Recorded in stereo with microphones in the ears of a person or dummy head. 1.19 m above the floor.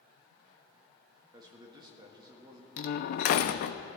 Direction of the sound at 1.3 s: 20° right (ahead or behind).